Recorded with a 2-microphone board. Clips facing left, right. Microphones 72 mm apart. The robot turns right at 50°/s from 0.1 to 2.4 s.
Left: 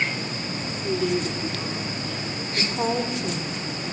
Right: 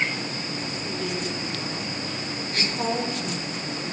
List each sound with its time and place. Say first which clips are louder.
0.8 s a woman speaking: left 8 dB; 95° left, 3 m; by 2.5 s 175° left, 3 m
2.5 s a woman speaking: left 2 dB; 20° left (ahead or behind), 4 m